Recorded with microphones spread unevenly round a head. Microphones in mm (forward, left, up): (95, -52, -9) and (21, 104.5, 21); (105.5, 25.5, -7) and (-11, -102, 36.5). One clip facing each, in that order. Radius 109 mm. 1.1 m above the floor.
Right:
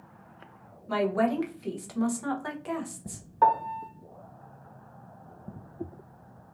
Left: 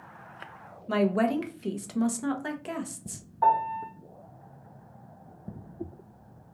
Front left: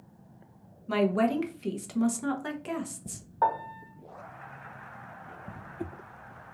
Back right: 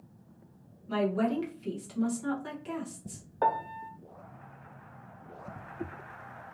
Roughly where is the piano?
Right.